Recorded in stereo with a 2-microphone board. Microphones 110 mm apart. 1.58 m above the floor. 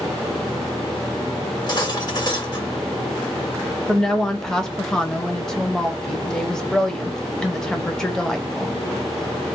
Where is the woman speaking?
5° left (ahead or behind), 0.7 m.